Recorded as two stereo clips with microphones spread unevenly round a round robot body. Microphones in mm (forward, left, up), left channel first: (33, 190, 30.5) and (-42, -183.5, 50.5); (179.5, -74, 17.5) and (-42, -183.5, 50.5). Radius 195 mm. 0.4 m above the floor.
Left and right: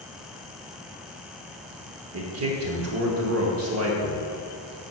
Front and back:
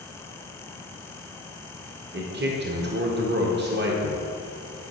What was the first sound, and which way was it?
A man speaking, 130° right.